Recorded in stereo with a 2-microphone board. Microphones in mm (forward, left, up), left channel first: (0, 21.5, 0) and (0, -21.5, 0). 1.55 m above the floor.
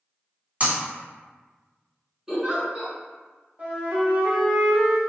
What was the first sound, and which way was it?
Breaking glass, 35° right (ahead or behind).